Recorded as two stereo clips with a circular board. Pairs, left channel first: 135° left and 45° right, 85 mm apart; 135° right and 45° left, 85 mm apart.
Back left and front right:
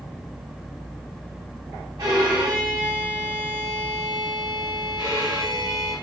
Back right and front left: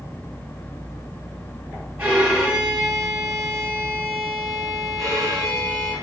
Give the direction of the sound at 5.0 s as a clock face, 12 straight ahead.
4 o'clock.